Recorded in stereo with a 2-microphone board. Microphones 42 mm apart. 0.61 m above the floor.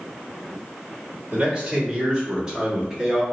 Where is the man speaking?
25° right (ahead or behind), 1.9 m; by 3.2 s 20° right (ahead or behind), 1.3 m.